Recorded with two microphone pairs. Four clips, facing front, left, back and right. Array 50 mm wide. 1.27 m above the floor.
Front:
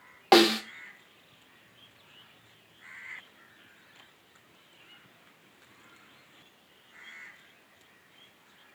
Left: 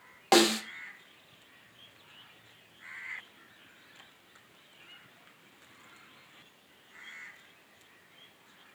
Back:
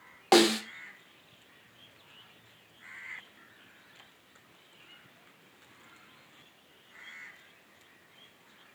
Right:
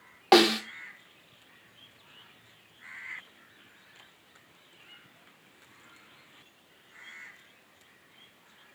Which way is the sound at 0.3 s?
35° right.